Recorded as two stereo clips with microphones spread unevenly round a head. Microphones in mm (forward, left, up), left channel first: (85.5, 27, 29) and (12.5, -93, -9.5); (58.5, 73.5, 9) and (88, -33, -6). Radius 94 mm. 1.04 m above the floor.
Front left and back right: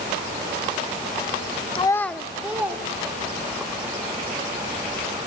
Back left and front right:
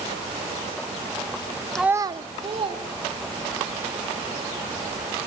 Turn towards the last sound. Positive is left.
turn(degrees=-45)